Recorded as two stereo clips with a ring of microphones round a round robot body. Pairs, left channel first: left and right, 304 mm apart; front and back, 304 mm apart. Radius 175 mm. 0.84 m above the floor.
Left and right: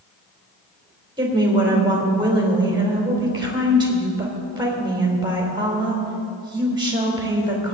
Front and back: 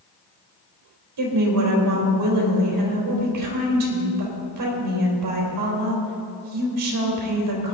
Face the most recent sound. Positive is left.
turn(degrees=-165)